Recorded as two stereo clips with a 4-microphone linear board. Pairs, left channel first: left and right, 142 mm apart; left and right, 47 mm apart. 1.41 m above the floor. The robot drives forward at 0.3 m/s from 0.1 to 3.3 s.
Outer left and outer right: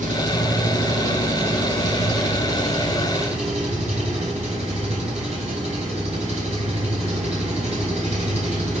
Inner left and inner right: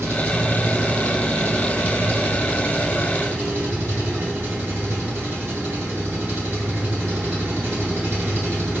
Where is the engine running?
65° right (ahead or behind), 2.5 m; by 8.8 s 50° right (ahead or behind), 2.5 m.